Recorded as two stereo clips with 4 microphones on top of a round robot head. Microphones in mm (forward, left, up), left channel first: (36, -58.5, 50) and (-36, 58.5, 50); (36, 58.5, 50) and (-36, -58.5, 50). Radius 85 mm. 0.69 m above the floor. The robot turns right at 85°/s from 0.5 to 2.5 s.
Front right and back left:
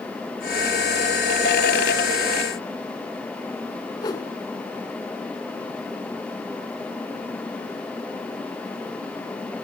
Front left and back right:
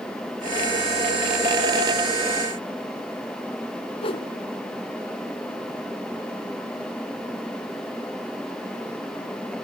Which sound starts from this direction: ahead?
A whoosh, at 4.0 s.